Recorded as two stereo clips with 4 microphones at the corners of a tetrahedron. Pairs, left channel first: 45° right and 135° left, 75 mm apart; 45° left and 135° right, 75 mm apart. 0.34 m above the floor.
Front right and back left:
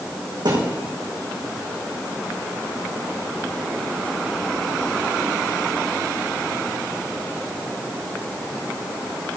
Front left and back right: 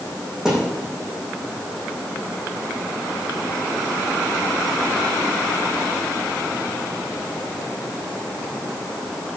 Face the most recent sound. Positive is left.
turn(degrees=140)